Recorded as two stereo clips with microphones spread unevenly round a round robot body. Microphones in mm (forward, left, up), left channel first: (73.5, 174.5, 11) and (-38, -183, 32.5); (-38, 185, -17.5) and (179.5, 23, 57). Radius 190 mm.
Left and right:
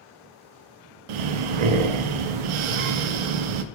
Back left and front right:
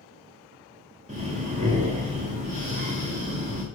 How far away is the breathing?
About 0.7 m.